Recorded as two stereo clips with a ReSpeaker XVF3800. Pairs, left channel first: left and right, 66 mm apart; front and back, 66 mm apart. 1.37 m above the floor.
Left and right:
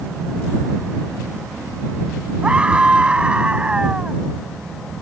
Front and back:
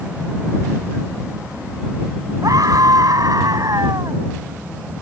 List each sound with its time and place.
2.4 s a scream: 165° right